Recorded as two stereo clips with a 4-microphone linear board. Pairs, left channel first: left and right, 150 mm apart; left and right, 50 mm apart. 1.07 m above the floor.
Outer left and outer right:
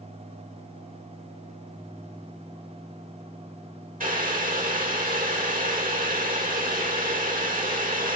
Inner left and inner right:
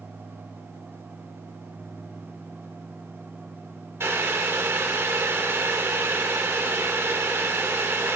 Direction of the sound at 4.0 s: 65° right (ahead or behind).